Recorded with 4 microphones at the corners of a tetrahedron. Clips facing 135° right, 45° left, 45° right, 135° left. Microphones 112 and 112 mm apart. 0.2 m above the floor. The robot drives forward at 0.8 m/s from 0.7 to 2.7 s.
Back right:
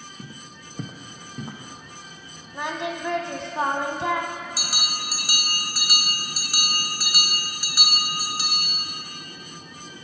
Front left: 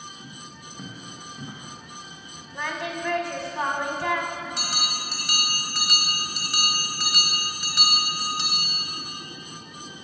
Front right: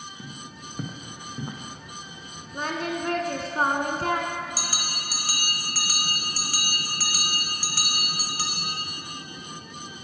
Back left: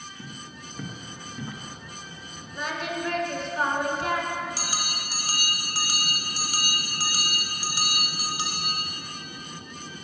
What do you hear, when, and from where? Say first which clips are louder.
0.2 s footsteps: back right 1 dB, front right 1 dB; 130° right, 0.9 m; by 1.6 s 105° right, 1.4 m
2.5 s singing: back right 2 dB, front right 2 dB; 60° right, 0.6 m; by 4.4 s 75° right, 0.6 m
4.6 s a bell: front left 1 dB, back left 1 dB; 145° left, 0.8 m